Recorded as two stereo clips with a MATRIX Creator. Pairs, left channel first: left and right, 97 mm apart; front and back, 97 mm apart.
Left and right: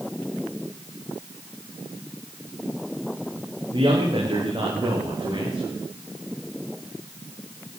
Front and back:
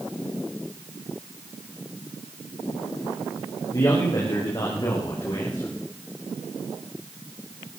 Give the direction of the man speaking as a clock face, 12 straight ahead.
2 o'clock.